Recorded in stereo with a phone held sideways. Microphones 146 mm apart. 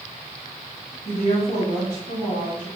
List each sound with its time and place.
1.1 s a woman speaking: 70° left (ahead or behind), 1.9 m